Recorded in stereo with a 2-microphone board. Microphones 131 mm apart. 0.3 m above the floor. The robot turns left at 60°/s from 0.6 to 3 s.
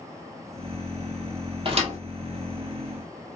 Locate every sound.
1.6 s a thud: 40° right (ahead or behind), 1.5 m; by 2.0 s 60° right (ahead or behind), 1.5 m